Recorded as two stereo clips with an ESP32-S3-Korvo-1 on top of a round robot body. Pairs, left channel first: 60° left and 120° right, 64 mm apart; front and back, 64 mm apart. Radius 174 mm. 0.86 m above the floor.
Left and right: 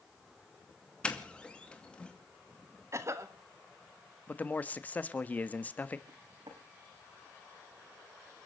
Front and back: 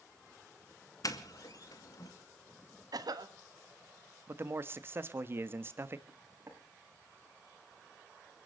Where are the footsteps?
125° right, 6 m.